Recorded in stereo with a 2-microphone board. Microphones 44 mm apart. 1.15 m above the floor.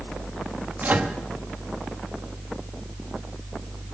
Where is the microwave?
45° right (ahead or behind), 1.1 m.